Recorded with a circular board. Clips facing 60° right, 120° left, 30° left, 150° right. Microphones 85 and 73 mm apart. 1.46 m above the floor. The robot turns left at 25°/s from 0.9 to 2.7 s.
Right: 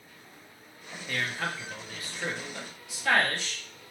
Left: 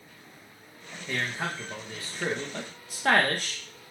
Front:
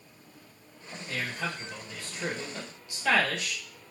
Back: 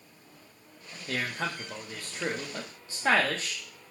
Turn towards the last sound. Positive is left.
turn(degrees=160)